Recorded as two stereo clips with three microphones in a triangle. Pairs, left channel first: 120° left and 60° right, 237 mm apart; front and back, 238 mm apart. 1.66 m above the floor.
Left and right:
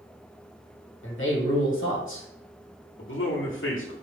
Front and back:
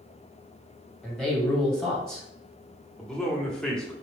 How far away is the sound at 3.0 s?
About 1.1 m.